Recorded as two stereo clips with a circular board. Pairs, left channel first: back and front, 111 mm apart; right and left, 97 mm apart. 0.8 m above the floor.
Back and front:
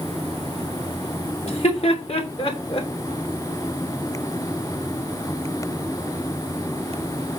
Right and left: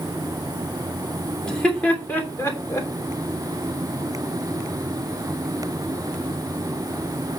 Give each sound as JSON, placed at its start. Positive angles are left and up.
{"t": 1.4, "sound": "laughter", "azimuth_deg": -175, "distance_m": 3.0}